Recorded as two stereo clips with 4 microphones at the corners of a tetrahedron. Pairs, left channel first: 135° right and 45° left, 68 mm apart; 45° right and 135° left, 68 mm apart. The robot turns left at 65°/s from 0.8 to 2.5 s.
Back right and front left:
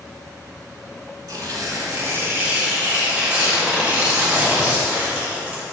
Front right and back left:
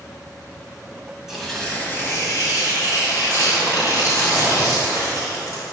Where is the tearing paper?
55° left, 1.6 m; by 5.7 s 25° right, 1.6 m.